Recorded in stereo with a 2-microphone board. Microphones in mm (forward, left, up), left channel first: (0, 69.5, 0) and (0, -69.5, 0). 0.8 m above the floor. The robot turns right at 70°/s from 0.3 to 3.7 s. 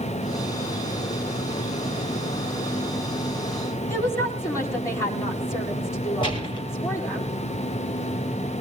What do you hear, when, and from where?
3.9 s a woman speaking: 20° left (ahead or behind), 7 m
6.2 s a gunshot: 35° left (ahead or behind), 6.5 m